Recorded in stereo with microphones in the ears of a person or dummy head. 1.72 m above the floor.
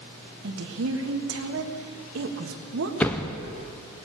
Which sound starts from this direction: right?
A woman speaking, at 0.4 s.